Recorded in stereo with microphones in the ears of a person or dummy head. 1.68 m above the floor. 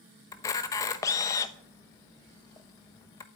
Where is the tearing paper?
I don't hear tearing paper.